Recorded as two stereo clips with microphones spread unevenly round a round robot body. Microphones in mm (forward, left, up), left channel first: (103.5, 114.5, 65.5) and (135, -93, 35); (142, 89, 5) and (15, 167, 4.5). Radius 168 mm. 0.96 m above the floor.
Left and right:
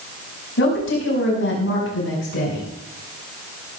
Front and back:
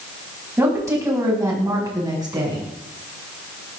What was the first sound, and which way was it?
A woman speaking, 75° left.